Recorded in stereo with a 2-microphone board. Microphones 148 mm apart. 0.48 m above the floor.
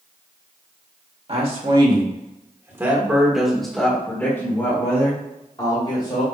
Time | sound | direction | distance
1.3 | a man speaking | 45° right (ahead or behind) | 1.8 m